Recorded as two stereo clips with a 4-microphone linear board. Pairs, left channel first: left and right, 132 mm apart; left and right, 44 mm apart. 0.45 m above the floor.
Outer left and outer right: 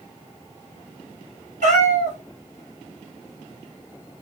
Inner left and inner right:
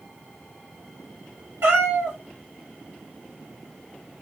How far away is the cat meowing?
About 2 m.